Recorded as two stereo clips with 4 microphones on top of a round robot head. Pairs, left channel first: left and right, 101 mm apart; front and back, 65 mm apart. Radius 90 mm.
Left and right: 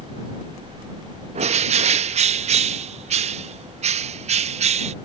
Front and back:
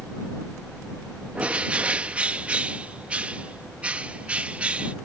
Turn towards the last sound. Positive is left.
turn(degrees=-105)